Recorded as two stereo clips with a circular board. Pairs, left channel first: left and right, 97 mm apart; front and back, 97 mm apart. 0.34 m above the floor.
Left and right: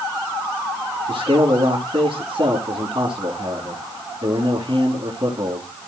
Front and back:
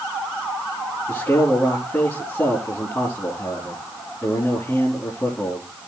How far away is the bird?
No bird in this recording.